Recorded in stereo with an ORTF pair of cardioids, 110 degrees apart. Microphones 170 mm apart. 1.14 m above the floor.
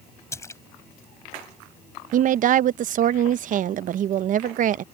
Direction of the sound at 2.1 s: 50° right.